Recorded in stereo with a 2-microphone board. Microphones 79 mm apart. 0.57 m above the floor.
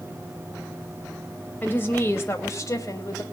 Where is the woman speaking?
25° left (ahead or behind), 3 m; by 3.2 s 45° left (ahead or behind), 3 m.